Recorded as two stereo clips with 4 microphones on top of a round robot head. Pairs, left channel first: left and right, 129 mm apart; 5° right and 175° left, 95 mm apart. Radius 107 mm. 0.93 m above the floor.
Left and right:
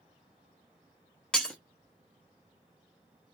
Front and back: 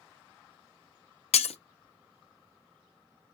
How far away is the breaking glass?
About 0.6 m.